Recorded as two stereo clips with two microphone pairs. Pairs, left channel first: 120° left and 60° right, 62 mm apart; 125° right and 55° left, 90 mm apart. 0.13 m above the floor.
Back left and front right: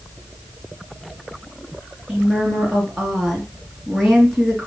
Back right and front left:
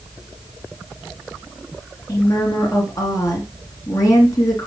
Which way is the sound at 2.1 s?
145° right.